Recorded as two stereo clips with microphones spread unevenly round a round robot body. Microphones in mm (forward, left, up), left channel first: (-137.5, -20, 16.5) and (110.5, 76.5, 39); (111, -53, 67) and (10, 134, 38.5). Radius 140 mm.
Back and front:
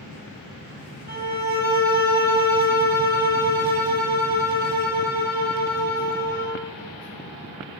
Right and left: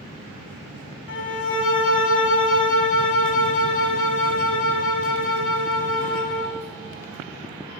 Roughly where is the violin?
Ahead right.